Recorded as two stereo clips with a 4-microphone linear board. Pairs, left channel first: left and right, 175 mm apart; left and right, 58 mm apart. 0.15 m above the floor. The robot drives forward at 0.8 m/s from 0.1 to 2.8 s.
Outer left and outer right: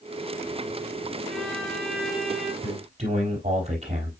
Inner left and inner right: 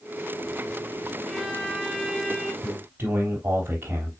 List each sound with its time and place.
1.3 s a violin: 5° left (ahead or behind), 1.1 m; by 2.5 s centre (ahead or behind), 2.0 m
2.6 s a man speaking: 40° right (ahead or behind), 3.5 m